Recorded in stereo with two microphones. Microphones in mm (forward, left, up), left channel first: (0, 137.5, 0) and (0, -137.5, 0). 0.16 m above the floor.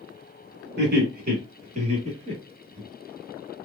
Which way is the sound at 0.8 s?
40° right (ahead or behind).